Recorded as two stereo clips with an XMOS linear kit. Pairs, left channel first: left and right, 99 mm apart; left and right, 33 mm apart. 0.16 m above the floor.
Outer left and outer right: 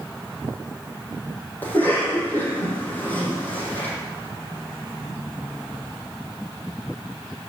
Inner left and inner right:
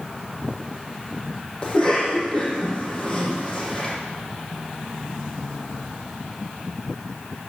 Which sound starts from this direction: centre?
A cough, at 1.6 s.